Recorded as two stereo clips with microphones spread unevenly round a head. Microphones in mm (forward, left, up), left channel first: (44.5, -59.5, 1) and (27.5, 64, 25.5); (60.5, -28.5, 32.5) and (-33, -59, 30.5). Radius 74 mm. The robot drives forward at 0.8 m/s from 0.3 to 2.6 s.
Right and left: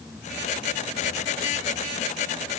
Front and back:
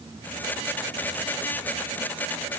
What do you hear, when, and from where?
Only background noise.